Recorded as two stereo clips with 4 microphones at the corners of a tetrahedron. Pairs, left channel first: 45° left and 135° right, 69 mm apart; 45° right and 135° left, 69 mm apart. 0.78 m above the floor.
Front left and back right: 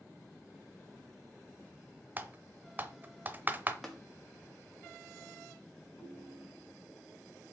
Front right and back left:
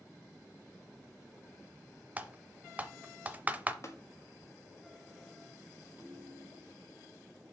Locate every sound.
2.2 s typing on a keyboard: 175° right, 0.6 m
3.8 s tapping: 45° right, 1.3 m
6.0 s a ringtone: 65° left, 4 m